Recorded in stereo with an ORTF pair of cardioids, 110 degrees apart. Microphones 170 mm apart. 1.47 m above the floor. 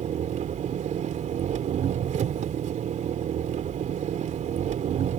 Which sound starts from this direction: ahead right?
An engine running, at 0.0 s.